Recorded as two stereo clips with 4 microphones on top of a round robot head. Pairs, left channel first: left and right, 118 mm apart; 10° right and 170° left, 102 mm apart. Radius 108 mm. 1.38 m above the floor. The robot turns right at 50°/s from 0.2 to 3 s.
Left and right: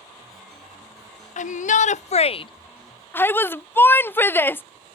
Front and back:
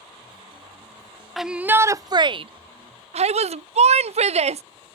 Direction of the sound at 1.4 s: 80° left.